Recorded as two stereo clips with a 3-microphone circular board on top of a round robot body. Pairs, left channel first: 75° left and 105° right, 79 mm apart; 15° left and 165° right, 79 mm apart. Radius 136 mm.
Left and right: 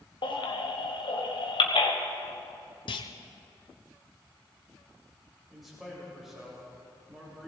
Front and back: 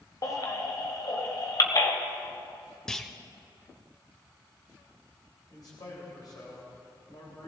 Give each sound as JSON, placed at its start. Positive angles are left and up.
{"t": 0.2, "sound": "a baby crying", "azimuth_deg": 60, "distance_m": 1.4}
{"t": 2.9, "sound": "a clunk", "azimuth_deg": 100, "distance_m": 0.6}
{"t": 5.5, "sound": "a man speaking", "azimuth_deg": -20, "distance_m": 3.0}